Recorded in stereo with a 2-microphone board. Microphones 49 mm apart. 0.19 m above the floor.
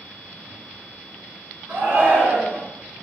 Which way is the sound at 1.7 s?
50° right (ahead or behind).